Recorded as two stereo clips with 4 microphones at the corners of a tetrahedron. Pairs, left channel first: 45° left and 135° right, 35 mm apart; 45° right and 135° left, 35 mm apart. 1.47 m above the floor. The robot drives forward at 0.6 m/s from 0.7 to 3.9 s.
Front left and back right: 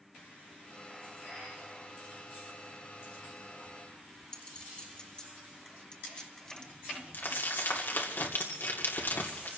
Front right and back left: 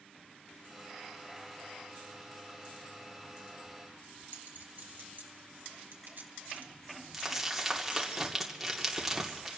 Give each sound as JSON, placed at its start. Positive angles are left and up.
{"t": 4.3, "sound": "a clink", "azimuth_deg": 110, "distance_m": 1.7}
{"t": 7.1, "sound": "crumpling", "azimuth_deg": 50, "distance_m": 2.5}